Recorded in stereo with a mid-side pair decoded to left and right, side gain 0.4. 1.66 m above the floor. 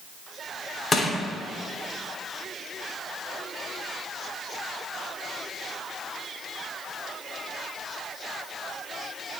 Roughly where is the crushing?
Ahead left.